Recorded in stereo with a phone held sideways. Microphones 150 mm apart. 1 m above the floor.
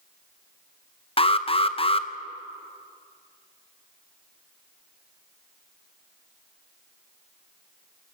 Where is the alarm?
40° left (ahead or behind), 0.7 m.